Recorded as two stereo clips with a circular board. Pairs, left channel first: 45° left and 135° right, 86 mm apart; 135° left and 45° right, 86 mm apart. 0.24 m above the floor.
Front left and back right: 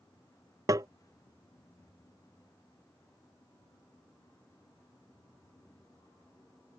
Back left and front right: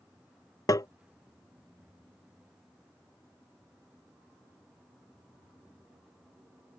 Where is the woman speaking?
I don't hear a woman speaking.